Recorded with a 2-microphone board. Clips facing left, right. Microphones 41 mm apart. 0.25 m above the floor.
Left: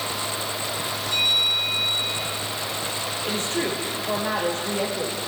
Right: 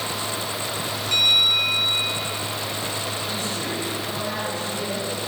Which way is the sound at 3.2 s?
80° left.